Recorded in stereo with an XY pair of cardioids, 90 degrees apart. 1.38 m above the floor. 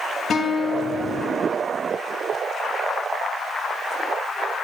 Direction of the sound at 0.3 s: 55° left.